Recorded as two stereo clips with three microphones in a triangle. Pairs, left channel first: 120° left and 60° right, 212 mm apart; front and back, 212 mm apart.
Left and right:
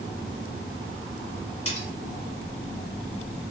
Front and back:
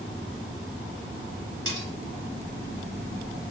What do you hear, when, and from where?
1.6 s cutlery clinking: 170° left, 1.0 m